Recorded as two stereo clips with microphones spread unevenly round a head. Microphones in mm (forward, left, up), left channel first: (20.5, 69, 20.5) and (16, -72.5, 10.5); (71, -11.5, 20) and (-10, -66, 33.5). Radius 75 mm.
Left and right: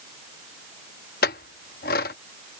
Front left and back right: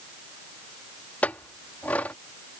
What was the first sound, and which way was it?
A clink, 115° left.